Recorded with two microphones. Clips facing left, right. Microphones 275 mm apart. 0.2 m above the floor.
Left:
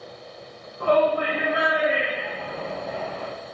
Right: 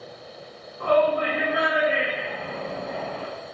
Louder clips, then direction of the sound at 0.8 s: Even; 25° left (ahead or behind).